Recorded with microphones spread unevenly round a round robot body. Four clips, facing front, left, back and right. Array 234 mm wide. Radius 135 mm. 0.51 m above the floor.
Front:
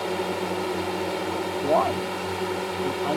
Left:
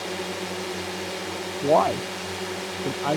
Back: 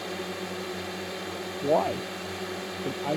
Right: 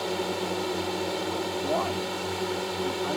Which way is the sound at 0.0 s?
20° right.